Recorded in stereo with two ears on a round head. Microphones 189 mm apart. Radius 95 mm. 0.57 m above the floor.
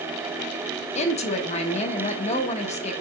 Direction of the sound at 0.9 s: 30° left (ahead or behind).